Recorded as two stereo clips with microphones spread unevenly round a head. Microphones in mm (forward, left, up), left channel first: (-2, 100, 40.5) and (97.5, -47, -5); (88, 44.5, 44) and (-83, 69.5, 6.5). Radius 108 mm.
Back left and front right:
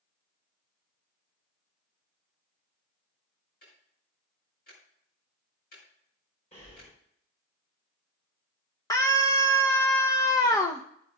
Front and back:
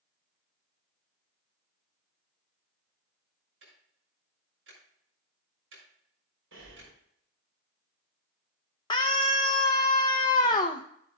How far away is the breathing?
About 4.5 m.